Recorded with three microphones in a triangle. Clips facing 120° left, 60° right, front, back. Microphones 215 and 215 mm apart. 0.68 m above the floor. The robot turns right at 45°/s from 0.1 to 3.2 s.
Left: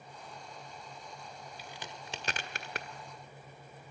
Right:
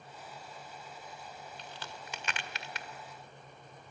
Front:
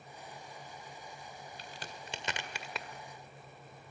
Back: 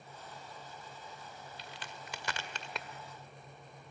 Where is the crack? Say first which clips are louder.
Even, front 1 dB; 35° left, 1.8 m; by 2.9 s 95° left, 1.8 m.